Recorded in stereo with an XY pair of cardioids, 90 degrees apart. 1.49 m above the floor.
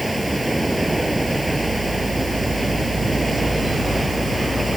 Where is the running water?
5° right.